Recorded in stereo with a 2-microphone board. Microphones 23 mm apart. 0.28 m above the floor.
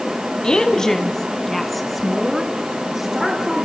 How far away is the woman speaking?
About 1.7 m.